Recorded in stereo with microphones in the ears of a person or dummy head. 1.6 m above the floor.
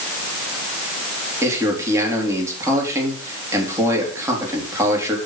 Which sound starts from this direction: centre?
A man speaking, at 1.4 s.